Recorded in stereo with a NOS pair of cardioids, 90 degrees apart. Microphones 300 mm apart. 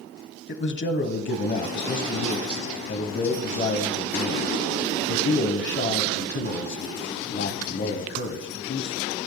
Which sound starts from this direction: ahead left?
A man speaking, at 0.5 s.